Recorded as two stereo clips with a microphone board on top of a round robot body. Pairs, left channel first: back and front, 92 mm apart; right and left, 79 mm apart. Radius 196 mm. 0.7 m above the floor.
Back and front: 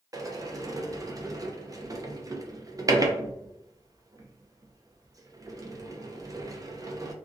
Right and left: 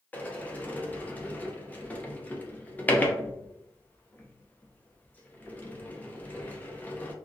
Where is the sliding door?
30° right, 0.7 m.